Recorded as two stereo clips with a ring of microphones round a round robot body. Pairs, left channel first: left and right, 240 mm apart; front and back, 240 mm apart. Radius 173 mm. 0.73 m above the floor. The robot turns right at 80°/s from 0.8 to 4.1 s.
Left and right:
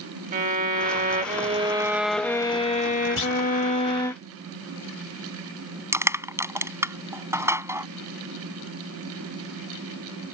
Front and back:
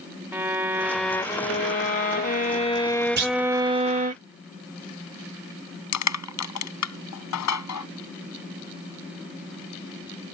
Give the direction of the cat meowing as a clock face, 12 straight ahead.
I don't hear a cat meowing.